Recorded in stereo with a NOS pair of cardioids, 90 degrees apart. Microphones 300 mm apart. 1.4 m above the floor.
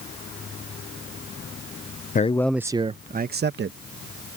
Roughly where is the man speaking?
Ahead left.